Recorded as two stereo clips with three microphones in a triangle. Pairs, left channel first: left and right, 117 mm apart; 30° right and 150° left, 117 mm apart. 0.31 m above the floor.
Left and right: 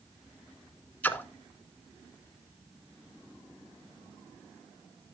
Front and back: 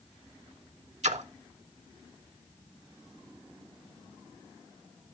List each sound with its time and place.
1.0 s a splash: 165° left, 0.5 m